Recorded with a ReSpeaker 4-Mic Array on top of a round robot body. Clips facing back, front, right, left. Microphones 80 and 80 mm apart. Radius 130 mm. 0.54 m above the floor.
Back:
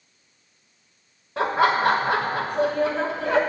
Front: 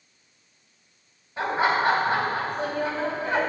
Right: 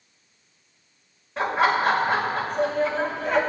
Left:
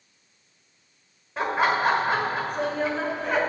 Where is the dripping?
No dripping in this recording.